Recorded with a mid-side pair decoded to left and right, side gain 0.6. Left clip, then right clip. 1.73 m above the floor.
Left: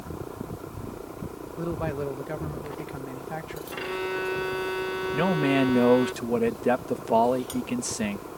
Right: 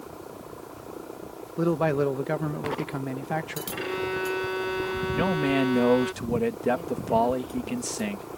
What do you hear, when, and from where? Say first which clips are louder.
1.6 s a man speaking: right 7 dB; 40° right
3.7 s a violin: even; 5° right
5.1 s a man speaking: left 2 dB; 5° left